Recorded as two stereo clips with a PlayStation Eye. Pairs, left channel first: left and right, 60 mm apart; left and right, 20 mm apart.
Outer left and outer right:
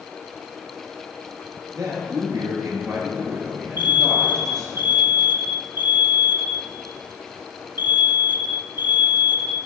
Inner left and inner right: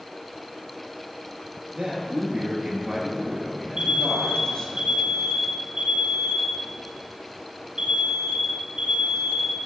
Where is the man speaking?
65° right (ahead or behind), 3.5 m; by 4.8 s 20° left (ahead or behind), 2.5 m.